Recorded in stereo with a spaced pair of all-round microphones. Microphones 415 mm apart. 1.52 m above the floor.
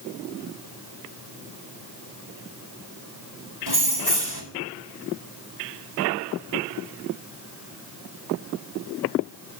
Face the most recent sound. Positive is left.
turn(degrees=-70)  # may be behind; listen again after turning